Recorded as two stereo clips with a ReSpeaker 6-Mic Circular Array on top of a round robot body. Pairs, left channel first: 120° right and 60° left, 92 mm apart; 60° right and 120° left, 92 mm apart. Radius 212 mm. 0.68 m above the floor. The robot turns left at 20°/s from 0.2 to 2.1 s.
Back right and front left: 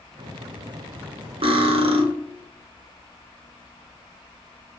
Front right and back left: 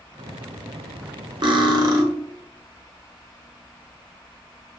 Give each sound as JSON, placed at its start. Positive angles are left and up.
{"t": 1.4, "sound": "cutlery clinking", "azimuth_deg": 80, "distance_m": 0.6}